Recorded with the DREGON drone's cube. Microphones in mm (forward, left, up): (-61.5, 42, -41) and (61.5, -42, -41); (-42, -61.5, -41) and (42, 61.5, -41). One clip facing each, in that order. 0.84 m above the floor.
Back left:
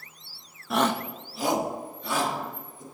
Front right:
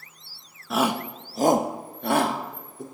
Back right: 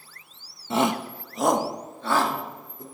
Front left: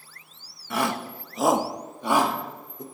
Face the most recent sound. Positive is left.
turn(degrees=-15)